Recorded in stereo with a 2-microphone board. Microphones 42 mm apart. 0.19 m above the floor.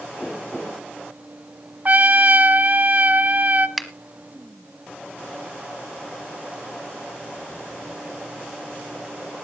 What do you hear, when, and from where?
1.9 s a trumpet: 40° right (ahead or behind), 0.6 m
3.8 s a finger snap: centre (ahead or behind), 1.1 m